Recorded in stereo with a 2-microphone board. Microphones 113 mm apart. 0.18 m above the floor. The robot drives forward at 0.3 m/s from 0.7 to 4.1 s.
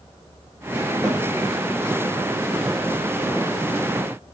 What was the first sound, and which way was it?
A snare drum, 25° right (ahead or behind).